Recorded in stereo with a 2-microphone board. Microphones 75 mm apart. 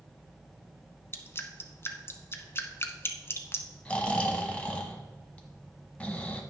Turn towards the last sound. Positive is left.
turn(degrees=15)  # may be behind; listen again after turning